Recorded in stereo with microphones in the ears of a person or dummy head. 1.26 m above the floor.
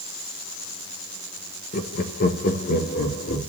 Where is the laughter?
45° left (ahead or behind), 0.8 m; by 3.4 s 50° left (ahead or behind), 1.7 m.